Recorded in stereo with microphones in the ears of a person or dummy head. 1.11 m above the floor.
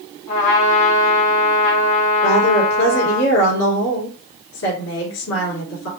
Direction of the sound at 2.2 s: 75° left (ahead or behind).